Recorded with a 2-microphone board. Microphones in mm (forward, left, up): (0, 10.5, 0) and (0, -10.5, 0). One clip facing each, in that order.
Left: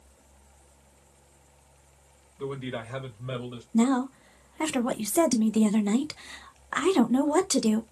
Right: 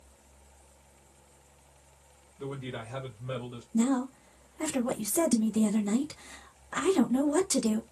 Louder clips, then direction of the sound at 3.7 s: Left 4 dB; 45° left (ahead or behind).